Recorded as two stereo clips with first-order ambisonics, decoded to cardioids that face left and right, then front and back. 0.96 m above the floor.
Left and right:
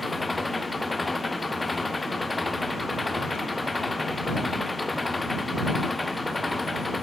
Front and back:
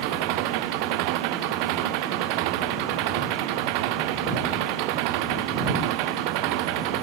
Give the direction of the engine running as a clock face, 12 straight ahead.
6 o'clock.